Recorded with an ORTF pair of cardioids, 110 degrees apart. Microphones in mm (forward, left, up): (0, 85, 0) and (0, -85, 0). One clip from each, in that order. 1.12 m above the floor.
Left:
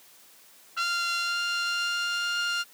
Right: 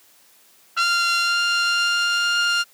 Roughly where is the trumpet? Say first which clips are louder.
Right 8 dB; ahead right.